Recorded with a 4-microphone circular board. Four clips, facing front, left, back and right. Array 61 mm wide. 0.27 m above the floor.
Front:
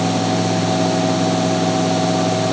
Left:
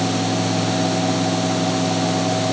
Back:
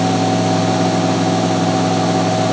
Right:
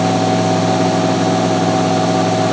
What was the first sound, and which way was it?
Only background noise.